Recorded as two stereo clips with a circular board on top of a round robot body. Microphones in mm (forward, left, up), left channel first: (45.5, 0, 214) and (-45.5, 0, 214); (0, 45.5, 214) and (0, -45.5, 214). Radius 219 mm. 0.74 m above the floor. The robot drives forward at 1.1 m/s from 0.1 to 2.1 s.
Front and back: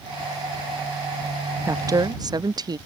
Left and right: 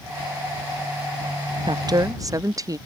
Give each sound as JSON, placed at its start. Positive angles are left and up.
{"t": 1.7, "sound": "a woman speaking", "azimuth_deg": -120}